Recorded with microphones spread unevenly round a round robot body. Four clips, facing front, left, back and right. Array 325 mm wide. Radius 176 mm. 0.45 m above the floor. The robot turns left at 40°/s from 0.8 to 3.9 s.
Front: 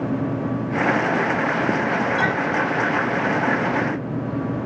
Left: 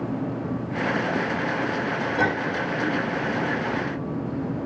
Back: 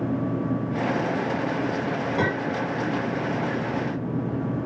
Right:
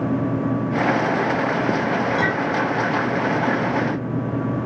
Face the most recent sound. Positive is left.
turn(degrees=150)